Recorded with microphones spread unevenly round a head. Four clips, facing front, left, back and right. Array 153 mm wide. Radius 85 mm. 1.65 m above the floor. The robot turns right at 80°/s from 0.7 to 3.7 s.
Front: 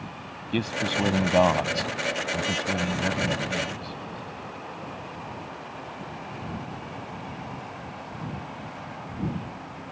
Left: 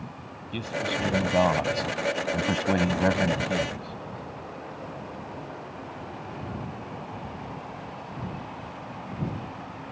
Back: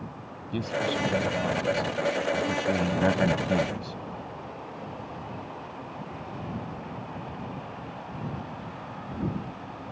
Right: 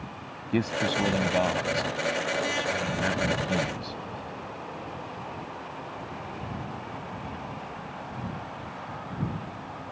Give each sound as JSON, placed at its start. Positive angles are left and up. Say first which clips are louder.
{"t": 0.5, "sound": "a man speaking", "louder": "right 4 dB, front 1 dB", "azimuth_deg": -55}